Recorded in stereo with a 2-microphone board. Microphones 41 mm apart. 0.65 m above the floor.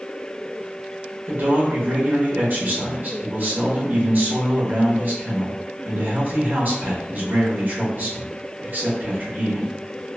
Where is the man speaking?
50° right (ahead or behind), 1.1 m.